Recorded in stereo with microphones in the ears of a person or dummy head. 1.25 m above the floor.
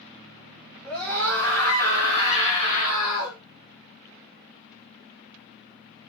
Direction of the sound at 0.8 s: Centre (ahead or behind).